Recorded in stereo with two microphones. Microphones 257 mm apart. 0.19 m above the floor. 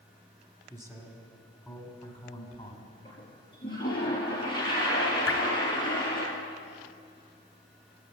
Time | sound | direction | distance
0.7 | a man speaking | 15° right (ahead or behind) | 1.6 m
3.0 | a toilet flushing | 20° left (ahead or behind) | 4 m
5.3 | dripping | 60° left (ahead or behind) | 1.1 m